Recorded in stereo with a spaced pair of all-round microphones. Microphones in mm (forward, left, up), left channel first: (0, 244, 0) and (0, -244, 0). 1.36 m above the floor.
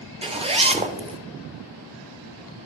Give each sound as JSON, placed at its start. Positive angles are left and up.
{"t": 0.2, "sound": "a zipper", "side_deg": -10, "distance_m": 0.6}